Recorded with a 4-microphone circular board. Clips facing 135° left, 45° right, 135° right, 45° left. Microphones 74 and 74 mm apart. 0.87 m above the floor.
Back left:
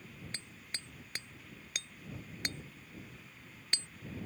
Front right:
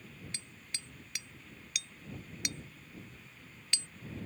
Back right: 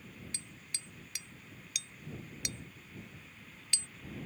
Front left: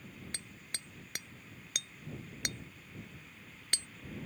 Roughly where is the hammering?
Left.